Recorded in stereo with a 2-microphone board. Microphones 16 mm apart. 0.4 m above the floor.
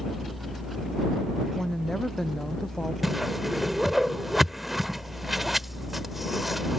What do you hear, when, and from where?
1.5 s a woman speaking: 35° left (ahead or behind); by 2.9 s 30° left (ahead or behind)
3.0 s a whoosh: 15° right (ahead or behind)